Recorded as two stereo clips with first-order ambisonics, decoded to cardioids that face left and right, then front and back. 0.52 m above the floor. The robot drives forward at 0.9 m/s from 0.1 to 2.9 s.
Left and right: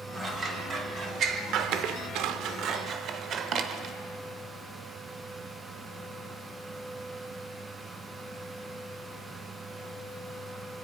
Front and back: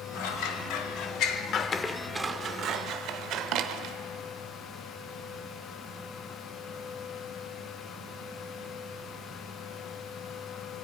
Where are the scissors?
20° right, 1.9 m; by 4.0 s 140° right, 1.0 m.